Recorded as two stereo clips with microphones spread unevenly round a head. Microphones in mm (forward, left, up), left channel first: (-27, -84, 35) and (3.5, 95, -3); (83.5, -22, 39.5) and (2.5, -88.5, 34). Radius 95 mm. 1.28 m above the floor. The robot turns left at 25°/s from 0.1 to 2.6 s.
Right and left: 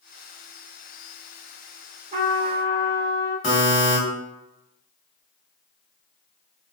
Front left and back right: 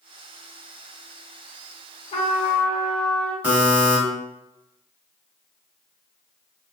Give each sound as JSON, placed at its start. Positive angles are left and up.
{"t": 2.1, "sound": "a trumpet", "azimuth_deg": 20, "distance_m": 0.7}
{"t": 3.4, "sound": "a buzzer", "azimuth_deg": -70, "distance_m": 1.7}